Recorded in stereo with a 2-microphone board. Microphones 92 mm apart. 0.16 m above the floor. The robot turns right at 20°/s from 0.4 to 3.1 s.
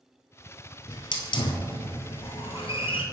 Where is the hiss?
55° left (ahead or behind), 1.0 m; by 3.0 s 75° left (ahead or behind), 1.0 m.